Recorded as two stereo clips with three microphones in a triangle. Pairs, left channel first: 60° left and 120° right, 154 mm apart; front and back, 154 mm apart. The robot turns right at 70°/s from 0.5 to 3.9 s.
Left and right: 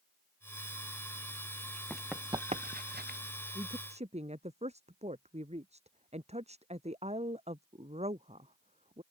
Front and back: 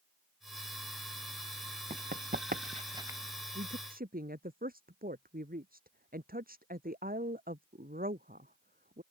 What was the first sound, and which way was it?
Running footsteps, 140° left.